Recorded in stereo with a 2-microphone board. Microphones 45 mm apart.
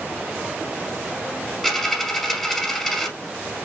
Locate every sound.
1.6 s a dropped coin: 5° left (ahead or behind), 2 m